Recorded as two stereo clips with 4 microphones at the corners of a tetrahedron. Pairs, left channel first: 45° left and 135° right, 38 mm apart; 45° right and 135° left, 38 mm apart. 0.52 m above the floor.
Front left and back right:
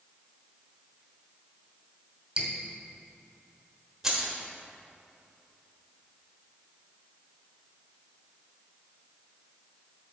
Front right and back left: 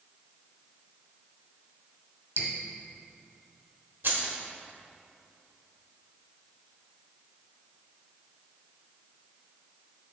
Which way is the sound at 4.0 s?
145° left.